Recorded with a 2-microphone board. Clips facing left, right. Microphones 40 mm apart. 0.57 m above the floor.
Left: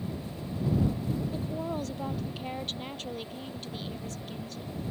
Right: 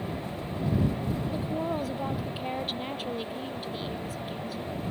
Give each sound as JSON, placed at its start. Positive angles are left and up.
{"t": 1.3, "sound": "a woman speaking", "side_deg": -10}